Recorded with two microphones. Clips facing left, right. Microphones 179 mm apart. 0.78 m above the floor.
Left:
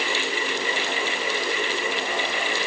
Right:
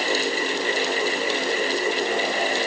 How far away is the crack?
I don't hear a crack.